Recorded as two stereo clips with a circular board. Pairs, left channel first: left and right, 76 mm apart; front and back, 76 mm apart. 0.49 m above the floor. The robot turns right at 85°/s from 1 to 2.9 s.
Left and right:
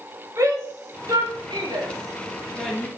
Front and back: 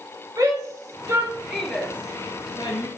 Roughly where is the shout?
Behind right.